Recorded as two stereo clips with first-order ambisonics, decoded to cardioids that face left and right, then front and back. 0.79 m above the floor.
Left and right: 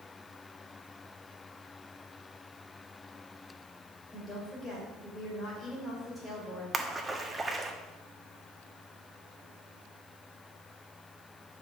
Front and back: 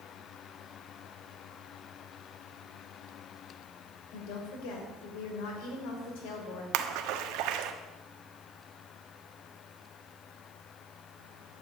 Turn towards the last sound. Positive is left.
turn(degrees=-170)